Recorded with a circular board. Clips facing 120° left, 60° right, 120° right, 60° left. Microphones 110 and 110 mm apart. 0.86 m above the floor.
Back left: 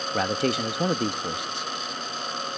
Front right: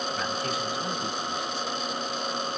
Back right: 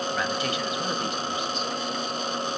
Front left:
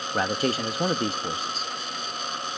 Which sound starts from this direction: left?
A man speaking, at 0.1 s.